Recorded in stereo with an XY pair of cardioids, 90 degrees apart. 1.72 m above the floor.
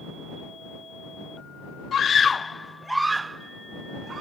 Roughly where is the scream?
Ahead left.